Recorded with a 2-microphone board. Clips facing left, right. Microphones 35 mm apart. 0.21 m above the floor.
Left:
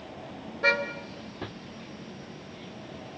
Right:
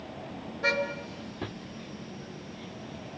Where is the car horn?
10° left (ahead or behind), 2 m; by 3.2 s 20° left (ahead or behind), 3.5 m.